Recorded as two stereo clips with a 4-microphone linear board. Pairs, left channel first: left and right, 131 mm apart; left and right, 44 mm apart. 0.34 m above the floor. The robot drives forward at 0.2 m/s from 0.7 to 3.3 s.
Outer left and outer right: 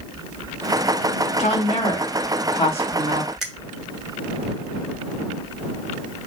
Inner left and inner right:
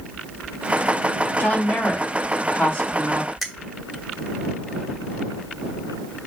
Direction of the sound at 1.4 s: 50° left (ahead or behind).